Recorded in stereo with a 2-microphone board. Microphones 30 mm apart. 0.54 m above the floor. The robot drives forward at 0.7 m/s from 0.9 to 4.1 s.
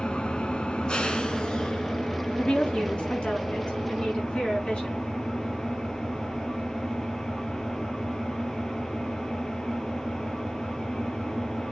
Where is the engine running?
30° left (ahead or behind), 1.7 m; by 11.7 s 15° left (ahead or behind), 4 m.